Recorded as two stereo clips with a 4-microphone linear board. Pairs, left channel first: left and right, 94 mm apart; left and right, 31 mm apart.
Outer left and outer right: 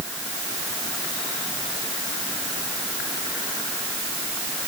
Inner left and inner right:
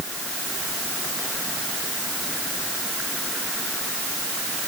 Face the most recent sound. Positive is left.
No sound to turn to.